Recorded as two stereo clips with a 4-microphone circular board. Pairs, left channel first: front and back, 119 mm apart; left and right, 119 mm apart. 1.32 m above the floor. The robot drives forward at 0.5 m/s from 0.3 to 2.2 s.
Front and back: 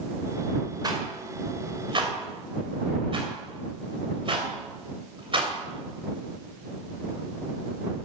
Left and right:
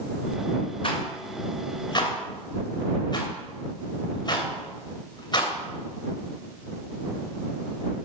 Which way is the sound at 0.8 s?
130° left.